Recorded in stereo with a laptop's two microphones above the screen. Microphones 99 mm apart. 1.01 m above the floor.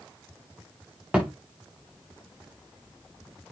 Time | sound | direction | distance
1.1 | a thud | 10° right (ahead or behind) | 4 m